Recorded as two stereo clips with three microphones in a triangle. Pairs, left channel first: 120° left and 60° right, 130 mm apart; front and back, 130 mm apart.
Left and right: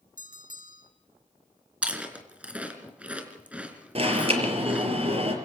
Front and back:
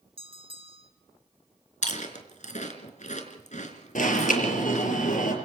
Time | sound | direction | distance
0.2 | a bell | 130° left | 4 m
1.8 | chewing | 20° left | 4 m
4.0 | an alarm | 15° right | 5.5 m